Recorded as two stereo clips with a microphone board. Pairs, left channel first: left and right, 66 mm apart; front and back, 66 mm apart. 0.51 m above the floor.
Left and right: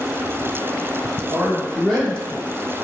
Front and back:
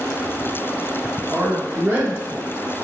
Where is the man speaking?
160° right, 1.1 m; by 2.8 s 90° left, 1.0 m.